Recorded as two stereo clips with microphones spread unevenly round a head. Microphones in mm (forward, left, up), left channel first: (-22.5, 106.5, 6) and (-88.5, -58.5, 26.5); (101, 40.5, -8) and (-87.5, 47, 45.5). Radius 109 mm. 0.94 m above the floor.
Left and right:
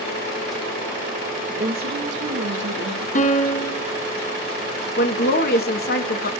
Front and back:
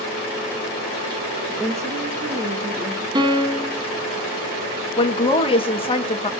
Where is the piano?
105° left, 1.4 m.